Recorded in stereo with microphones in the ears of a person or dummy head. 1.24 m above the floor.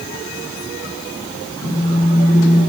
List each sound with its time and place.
1.6 s a phone buzzing: 35° left (ahead or behind), 1.7 m